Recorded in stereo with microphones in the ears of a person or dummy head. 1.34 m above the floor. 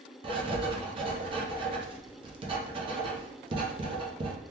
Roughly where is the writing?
Right.